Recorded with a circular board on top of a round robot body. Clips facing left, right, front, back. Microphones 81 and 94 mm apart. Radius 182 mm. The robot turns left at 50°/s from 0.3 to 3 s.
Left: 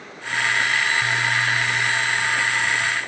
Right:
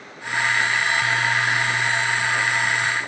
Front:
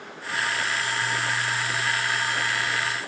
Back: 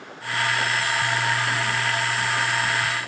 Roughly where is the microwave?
I don't hear a microwave.